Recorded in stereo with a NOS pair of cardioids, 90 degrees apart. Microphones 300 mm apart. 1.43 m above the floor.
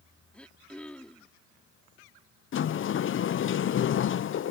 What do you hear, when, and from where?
0.3 s throat clearing: 5° left
2.5 s a sliding door: 45° left